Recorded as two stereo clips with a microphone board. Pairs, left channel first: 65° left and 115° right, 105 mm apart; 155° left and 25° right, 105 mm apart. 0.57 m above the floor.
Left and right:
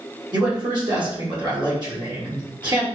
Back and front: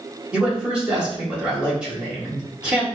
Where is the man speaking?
100° right, 1.6 m.